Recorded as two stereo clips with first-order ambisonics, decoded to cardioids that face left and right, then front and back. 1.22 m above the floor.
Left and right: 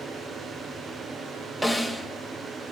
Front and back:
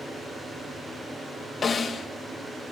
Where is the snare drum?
10° right, 0.6 m.